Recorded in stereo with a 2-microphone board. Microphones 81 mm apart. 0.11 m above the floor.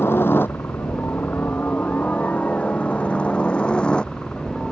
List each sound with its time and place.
0.0 s a helicopter: 30° left (ahead or behind); by 4.7 s 10° left (ahead or behind)